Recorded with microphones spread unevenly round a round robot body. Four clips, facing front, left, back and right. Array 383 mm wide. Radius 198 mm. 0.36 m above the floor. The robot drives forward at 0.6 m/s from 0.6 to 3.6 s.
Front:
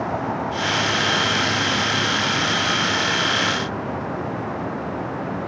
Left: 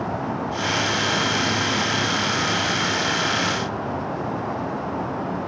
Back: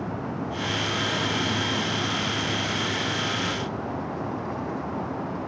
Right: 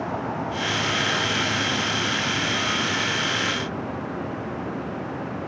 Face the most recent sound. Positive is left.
No sound to turn to.